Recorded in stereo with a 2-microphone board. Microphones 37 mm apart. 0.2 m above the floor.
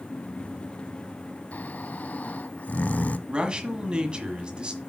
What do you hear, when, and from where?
1.5 s snoring: 45° left (ahead or behind), 0.5 m
3.3 s a man speaking: 25° right (ahead or behind), 1.6 m